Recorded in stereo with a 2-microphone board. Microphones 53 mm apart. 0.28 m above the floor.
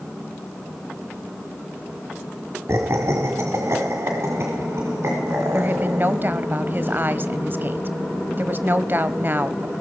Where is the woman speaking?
35° right (ahead or behind), 1.2 m.